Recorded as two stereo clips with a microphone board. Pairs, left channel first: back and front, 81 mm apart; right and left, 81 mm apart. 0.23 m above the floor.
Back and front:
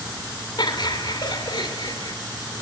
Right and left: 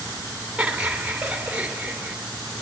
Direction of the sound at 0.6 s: 165° left.